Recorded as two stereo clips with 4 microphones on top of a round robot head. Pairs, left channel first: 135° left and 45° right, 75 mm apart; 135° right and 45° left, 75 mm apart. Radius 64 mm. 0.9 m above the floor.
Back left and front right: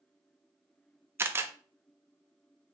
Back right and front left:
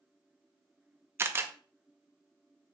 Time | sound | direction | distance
1.2 | a camera shutter | straight ahead | 0.6 m